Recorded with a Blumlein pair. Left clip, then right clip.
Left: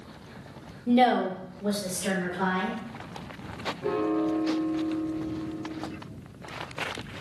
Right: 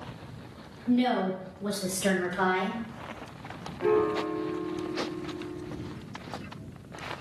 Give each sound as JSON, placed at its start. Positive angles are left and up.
{"t": 0.9, "sound": "a woman speaking", "azimuth_deg": 50, "distance_m": 0.5}
{"t": 3.8, "sound": "a piano", "azimuth_deg": -60, "distance_m": 0.6}